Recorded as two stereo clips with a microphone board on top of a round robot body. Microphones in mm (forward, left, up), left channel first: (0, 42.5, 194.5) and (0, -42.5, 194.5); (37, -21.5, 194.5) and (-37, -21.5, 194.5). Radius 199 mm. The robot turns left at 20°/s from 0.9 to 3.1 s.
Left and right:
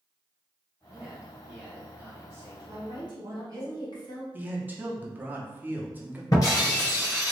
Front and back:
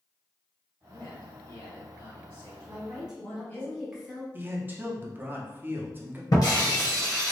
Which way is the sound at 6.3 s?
40° left.